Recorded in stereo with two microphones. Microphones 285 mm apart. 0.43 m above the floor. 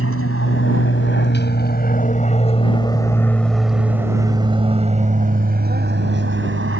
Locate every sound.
0.0 s an aircraft: 50° left (ahead or behind); by 6.8 s 45° right (ahead or behind)